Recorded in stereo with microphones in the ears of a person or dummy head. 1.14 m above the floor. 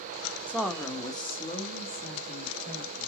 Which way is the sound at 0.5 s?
5° right (ahead or behind).